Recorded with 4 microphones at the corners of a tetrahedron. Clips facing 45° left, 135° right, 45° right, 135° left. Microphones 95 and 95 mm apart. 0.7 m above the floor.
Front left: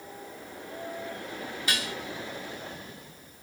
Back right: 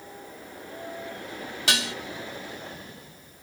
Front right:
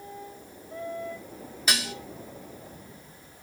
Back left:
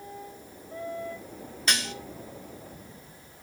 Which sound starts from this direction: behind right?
Dishes clattering, at 1.7 s.